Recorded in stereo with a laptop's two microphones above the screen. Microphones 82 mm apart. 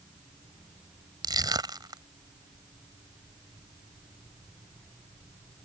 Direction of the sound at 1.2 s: 60° right (ahead or behind).